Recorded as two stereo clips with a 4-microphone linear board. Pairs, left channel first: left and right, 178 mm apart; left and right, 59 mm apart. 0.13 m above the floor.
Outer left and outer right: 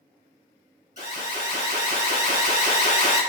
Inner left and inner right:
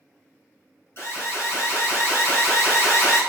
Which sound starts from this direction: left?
An alarm, at 1.0 s.